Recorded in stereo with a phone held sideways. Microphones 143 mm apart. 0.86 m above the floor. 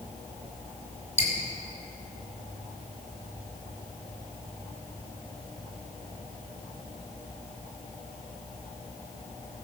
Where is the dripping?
55° left (ahead or behind), 3 m.